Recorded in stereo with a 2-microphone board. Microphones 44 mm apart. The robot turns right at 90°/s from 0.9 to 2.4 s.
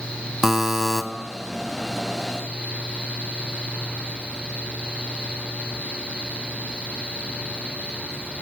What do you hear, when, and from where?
0.4 s a buzzer: 10° right (ahead or behind), 0.8 m; by 1.0 s 5° right (ahead or behind), 0.8 m